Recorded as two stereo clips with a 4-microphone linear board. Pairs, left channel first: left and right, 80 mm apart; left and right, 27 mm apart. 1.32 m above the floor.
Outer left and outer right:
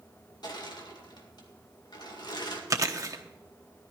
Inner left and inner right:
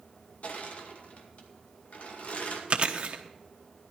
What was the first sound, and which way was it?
Crushing, 60° left (ahead or behind).